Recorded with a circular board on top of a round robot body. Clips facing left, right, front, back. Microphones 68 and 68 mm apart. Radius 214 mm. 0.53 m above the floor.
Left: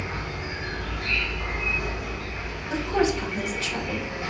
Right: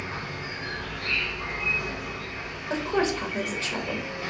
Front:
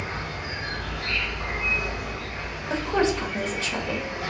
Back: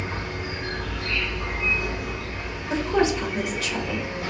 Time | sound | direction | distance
0.0 | an insect | 20° left | 2 m
2.7 | a woman speaking | 45° right | 1.8 m